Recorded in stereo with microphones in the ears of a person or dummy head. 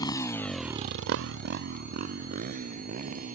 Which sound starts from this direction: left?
A motorcycle, at 0.0 s.